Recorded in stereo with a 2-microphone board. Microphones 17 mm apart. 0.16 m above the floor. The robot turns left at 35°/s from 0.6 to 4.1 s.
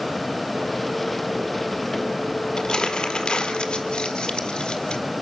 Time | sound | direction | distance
2.6 | crumpling | 50° left (ahead or behind) | 1.7 m